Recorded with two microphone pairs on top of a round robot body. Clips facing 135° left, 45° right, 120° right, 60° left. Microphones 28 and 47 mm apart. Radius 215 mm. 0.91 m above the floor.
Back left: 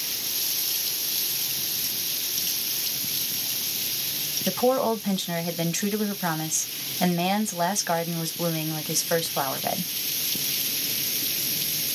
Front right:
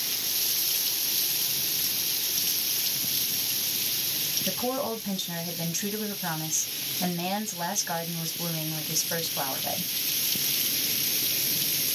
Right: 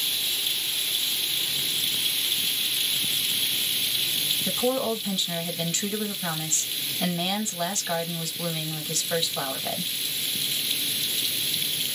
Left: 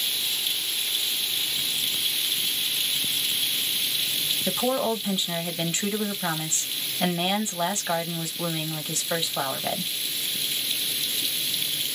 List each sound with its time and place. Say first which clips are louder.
4.5 s a woman speaking: back left 10 dB, left 1 dB; 125° left, 1.4 m